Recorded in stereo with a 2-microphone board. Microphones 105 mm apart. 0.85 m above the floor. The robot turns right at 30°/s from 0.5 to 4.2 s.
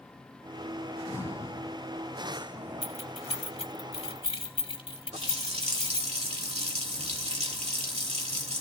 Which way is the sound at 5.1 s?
85° right.